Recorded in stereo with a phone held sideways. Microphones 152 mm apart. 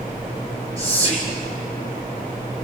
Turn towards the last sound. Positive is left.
turn(degrees=50)  # may be behind; listen again after turning